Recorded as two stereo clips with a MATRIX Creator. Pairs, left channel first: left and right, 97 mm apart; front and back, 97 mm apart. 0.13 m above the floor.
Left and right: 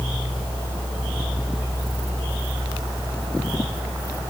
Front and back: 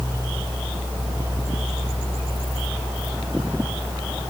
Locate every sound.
Only background noise.